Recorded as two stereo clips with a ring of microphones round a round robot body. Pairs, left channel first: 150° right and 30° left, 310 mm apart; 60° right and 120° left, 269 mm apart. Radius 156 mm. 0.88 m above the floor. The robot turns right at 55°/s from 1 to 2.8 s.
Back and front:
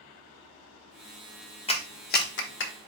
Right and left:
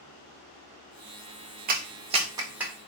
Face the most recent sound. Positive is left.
turn(degrees=-150)